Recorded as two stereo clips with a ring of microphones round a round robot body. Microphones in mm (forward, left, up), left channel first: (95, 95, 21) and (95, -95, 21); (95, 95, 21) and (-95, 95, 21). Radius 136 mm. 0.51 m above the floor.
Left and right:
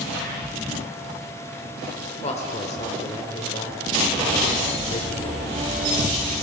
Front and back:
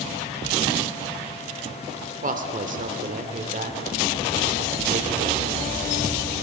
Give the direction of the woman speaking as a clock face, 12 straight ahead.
7 o'clock.